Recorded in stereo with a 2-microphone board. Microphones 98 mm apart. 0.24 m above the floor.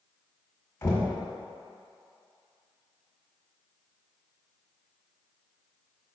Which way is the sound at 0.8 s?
25° left (ahead or behind).